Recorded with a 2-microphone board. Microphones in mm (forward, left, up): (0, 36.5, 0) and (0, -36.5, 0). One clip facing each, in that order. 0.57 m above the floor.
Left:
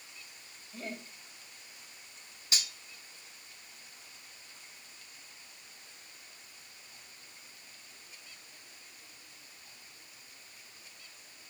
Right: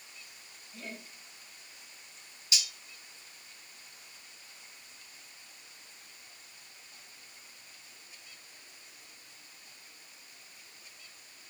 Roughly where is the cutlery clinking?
Left.